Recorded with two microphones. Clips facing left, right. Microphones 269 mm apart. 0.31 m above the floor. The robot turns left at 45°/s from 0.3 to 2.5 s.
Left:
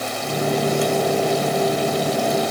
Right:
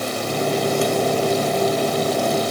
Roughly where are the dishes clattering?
I don't hear dishes clattering.